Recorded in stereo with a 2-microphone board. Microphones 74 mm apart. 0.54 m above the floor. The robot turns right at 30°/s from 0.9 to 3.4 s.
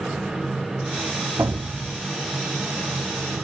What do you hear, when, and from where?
1.4 s an explosion: 35° right (ahead or behind), 1.9 m; by 2.1 s 55° right (ahead or behind), 1.9 m